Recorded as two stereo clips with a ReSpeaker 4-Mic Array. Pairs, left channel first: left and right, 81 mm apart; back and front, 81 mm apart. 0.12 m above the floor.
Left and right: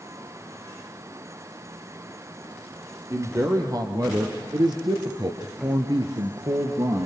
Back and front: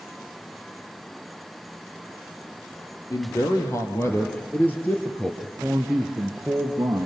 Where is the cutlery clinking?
I don't hear cutlery clinking.